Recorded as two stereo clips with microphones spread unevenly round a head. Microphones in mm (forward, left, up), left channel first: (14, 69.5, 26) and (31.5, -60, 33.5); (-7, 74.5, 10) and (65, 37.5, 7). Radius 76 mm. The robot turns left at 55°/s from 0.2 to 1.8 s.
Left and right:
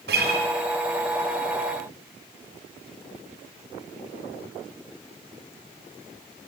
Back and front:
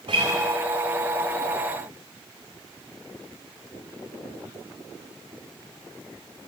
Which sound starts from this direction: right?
A guitar, at 0.1 s.